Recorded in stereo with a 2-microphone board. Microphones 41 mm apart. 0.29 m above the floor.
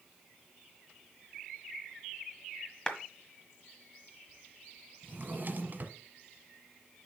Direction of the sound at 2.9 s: 15° left (ahead or behind).